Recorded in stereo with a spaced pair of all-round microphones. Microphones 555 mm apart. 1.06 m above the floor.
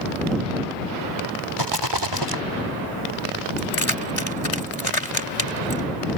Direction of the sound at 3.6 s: 75° left (ahead or behind).